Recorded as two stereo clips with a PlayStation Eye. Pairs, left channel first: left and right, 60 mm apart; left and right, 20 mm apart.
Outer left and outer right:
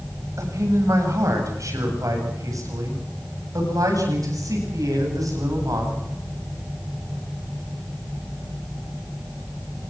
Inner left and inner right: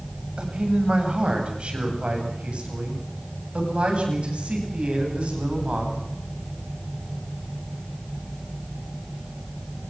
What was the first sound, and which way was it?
A man speaking, 65° right (ahead or behind).